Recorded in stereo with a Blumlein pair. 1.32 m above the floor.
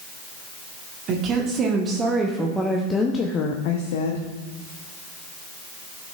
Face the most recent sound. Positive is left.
turn(degrees=70)